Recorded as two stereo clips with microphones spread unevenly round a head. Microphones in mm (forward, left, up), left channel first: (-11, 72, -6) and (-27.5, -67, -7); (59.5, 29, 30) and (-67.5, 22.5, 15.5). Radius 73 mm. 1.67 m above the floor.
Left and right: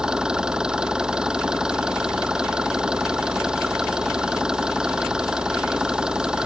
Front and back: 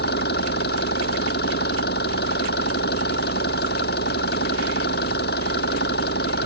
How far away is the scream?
No scream in this recording.